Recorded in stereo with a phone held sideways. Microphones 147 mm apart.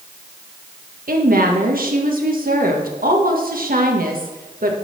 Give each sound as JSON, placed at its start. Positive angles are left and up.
{"t": 1.1, "sound": "a woman speaking", "side_deg": -75, "distance_m": 1.4}